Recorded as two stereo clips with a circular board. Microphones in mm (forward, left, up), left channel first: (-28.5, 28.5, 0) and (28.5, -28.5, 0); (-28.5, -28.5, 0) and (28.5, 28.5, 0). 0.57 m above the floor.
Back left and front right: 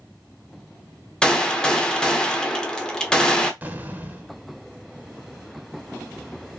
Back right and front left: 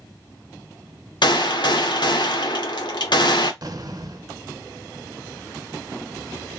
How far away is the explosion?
About 0.6 m.